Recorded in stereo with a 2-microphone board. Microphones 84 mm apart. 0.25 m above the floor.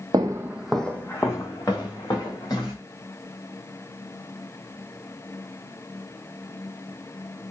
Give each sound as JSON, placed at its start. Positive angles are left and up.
{"t": 0.1, "sound": "footsteps", "side_deg": -55, "distance_m": 0.6}